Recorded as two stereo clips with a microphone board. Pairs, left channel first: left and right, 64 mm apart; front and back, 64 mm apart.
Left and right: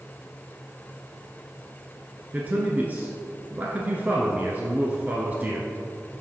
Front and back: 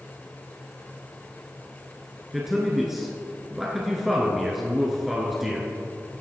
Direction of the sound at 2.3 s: 95° right.